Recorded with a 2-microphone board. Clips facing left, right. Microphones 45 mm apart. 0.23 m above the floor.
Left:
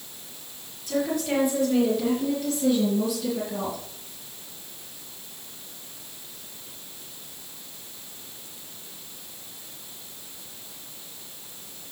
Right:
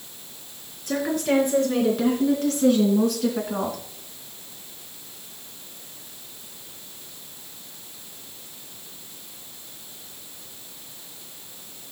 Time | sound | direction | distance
0.9 | a woman speaking | 60° right (ahead or behind) | 4 m